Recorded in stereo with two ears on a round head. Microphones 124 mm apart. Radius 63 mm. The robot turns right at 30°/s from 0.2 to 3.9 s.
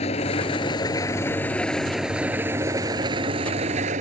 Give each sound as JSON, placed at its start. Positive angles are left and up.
{"t": 0.0, "sound": "an engine running", "azimuth_deg": 130}